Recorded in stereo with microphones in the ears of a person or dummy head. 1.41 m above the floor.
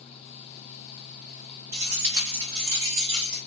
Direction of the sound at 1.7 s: 55° right (ahead or behind).